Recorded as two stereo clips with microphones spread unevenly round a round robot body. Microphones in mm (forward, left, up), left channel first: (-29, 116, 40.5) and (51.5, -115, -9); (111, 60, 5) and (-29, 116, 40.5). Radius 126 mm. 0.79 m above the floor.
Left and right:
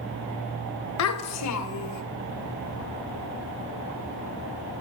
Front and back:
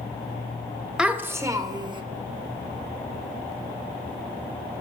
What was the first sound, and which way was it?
A child speaking, 75° left.